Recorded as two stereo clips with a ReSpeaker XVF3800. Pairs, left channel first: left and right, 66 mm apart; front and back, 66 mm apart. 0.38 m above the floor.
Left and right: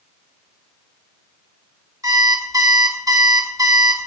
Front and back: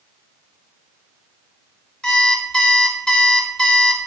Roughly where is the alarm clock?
Right.